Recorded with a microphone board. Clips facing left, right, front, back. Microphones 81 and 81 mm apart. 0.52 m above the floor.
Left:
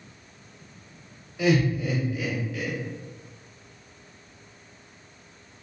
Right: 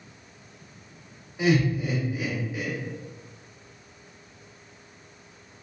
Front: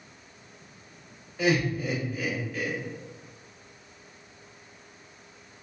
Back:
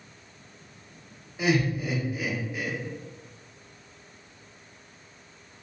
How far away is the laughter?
About 1.0 m.